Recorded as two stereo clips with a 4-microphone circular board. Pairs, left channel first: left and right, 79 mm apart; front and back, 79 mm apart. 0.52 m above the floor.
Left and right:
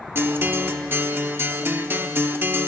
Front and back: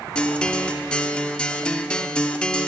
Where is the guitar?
65° right, 0.6 m.